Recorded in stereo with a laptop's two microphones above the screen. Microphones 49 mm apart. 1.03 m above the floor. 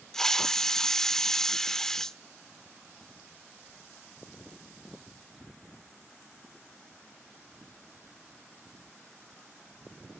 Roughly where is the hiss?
Centre.